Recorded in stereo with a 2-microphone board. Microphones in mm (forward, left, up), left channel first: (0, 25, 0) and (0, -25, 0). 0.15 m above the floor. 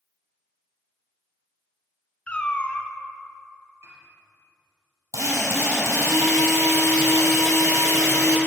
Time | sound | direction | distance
2.3 | a cat meowing | 25° left (ahead or behind) | 0.8 m
3.8 | a piano | 60° right (ahead or behind) | 3 m
5.1 | a drill | 75° right (ahead or behind) | 3 m